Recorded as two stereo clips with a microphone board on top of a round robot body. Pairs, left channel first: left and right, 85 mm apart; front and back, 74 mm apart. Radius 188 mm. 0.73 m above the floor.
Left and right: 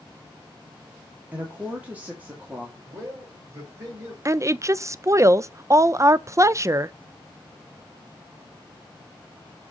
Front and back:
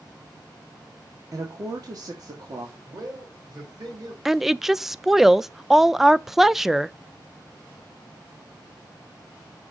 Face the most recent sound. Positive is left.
turn(degrees=-95)